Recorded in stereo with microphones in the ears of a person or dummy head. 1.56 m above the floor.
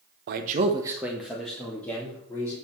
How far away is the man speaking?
About 0.8 m.